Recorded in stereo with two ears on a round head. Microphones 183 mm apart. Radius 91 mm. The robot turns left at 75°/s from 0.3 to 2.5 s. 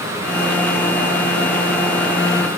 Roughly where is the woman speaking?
No woman speaking in this recording.